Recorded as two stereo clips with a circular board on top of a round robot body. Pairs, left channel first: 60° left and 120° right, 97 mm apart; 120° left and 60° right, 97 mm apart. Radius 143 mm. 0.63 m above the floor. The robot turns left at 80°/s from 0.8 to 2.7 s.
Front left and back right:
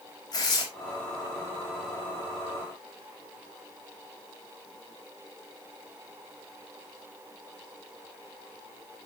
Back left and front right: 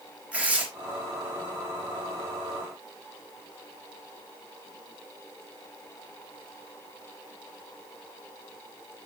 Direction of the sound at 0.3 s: 15° left.